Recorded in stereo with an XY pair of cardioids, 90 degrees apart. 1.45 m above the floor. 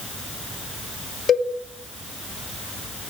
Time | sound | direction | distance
1.3 | a cowbell | 55° left | 3 m